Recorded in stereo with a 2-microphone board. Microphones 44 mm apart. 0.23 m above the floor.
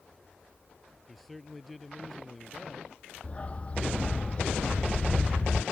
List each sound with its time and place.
1.1 s a man speaking: 5° left (ahead or behind)
3.2 s a dog barking: 30° left (ahead or behind)